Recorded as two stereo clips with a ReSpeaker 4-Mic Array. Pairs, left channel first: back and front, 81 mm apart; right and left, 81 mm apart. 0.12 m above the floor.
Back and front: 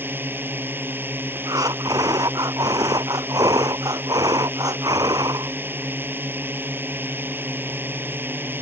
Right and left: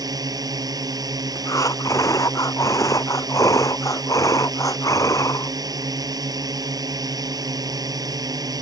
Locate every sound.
0.0 s a drone: 60° left
1.4 s breathing: 40° right